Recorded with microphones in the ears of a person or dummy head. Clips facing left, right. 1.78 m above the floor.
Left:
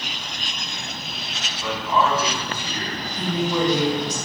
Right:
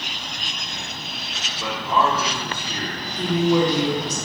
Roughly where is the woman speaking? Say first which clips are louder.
Right 4 dB; right.